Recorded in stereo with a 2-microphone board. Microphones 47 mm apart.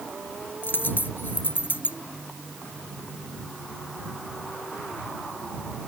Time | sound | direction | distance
0.6 | a dropped coin | 50° left (ahead or behind) | ?